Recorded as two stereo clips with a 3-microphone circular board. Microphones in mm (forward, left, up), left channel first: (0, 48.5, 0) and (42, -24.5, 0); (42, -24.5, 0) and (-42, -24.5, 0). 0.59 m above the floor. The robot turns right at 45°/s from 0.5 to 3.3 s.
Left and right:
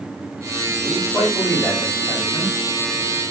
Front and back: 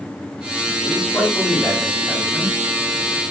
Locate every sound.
0.8 s a man speaking: 30° left, 1.9 m; by 2.5 s 105° left, 1.9 m